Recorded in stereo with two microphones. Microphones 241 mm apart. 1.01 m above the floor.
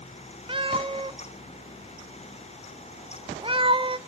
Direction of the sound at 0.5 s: 20° right (ahead or behind).